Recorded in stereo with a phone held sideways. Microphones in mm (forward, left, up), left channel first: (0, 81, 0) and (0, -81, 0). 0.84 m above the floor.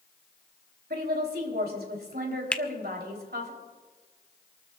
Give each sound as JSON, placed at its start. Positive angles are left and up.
{"t": 0.9, "sound": "a woman speaking", "side_deg": -80, "distance_m": 3.5}
{"t": 2.5, "sound": "a finger snap", "side_deg": 5, "distance_m": 0.6}